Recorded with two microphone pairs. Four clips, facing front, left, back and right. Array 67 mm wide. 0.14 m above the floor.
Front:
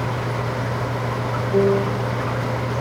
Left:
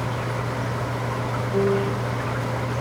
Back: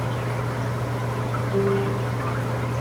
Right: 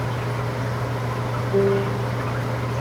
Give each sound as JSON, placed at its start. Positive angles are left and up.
{"t": 1.5, "sound": "a piano", "azimuth_deg": -75, "distance_m": 3.0}